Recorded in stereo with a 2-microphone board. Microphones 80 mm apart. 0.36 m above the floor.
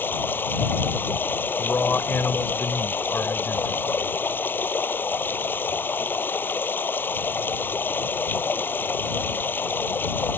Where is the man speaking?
25° left (ahead or behind).